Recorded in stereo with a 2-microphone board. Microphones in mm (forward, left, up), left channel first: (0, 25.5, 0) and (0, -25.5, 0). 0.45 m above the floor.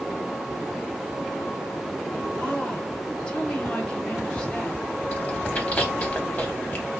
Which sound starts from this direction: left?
Chewing, at 5.1 s.